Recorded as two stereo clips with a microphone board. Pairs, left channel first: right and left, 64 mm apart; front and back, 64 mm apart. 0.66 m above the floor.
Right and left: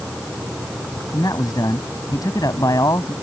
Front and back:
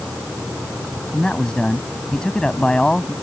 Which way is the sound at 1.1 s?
80° right.